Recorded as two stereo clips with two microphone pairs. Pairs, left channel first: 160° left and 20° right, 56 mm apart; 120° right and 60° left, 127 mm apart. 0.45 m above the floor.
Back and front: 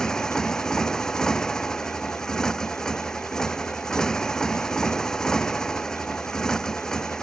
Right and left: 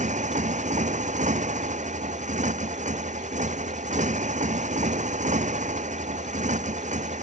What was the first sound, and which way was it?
A motorcycle, 80° left.